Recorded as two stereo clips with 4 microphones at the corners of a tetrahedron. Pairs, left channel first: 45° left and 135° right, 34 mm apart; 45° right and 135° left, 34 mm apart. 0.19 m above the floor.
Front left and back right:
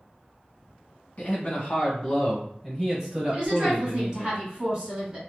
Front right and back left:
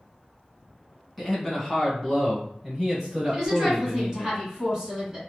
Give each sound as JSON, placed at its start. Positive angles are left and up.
{"t": 1.2, "sound": "a man speaking", "azimuth_deg": 40, "distance_m": 1.4}
{"t": 3.3, "sound": "a woman speaking", "azimuth_deg": -165, "distance_m": 1.6}